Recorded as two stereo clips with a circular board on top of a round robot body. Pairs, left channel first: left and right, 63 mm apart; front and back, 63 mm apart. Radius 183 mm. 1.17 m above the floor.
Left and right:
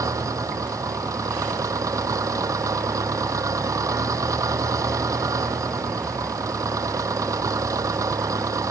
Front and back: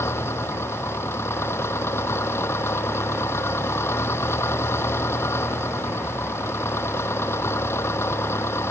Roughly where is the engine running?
Ahead right.